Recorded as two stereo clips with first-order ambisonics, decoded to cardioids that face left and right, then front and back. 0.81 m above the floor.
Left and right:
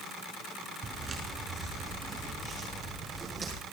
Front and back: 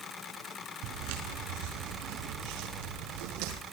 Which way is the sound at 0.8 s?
165° right.